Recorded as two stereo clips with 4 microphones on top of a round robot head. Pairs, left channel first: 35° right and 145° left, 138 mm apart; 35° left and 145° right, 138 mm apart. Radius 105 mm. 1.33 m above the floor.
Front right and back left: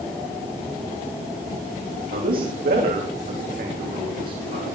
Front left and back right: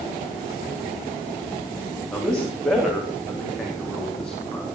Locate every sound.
2.1 s a man speaking: 120° left, 3.5 m